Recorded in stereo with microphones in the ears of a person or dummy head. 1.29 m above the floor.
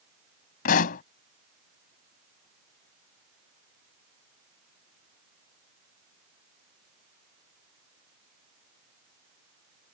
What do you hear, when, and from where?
0.7 s a pop: 60° left (ahead or behind)